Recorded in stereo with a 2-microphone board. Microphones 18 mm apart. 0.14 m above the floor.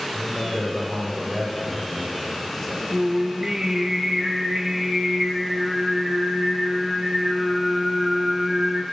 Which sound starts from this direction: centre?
A man speaking, at 0.1 s.